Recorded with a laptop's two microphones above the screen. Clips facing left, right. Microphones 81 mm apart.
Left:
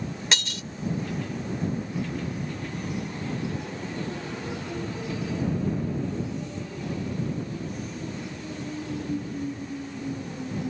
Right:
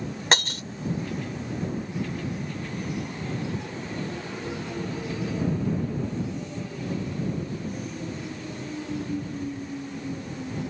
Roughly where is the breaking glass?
Right.